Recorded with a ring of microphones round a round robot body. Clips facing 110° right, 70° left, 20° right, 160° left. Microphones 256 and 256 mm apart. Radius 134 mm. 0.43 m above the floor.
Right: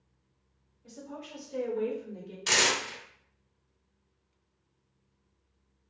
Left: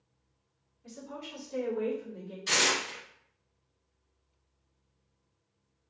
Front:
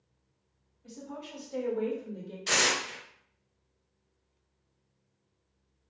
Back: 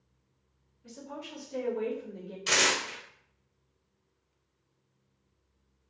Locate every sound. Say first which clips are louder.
0.8 s a woman speaking: even, front 1 dB; 110° left, 1.7 m; by 2.4 s 100° right, 1.3 m
2.5 s tearing paper: right 1 dB, back 1 dB; 125° right, 0.7 m